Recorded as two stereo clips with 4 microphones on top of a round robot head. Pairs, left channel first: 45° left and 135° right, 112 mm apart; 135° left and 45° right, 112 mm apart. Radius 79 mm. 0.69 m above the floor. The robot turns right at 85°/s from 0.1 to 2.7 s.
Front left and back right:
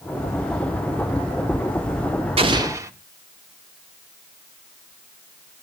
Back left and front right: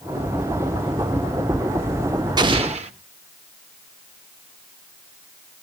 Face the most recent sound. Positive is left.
turn(degrees=-70)